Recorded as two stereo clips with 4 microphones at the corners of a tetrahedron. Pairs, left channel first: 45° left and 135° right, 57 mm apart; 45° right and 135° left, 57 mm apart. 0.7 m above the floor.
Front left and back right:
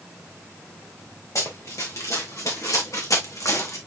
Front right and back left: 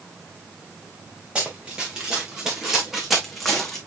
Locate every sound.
1.4 s running footsteps: 65° left, 3 m; by 3.8 s 40° left, 2.5 m